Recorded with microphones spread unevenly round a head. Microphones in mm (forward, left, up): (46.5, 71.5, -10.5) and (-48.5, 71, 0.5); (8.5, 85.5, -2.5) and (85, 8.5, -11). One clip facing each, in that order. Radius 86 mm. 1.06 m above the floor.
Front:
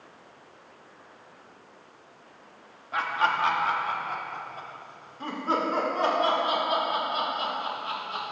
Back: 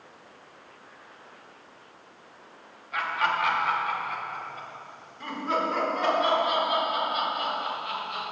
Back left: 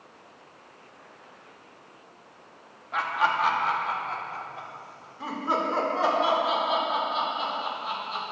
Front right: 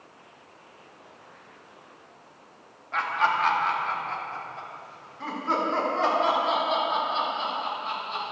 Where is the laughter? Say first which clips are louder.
Front 1 dB, even; 55° left, 2.5 m.